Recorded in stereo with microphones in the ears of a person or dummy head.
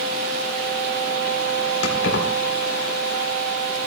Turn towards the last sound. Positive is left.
turn(degrees=80)